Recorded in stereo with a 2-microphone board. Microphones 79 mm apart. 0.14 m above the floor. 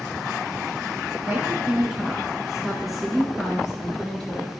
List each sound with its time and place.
1.2 s a woman speaking: 20° right (ahead or behind), 1.4 m; by 4.5 s 10° left (ahead or behind), 2.5 m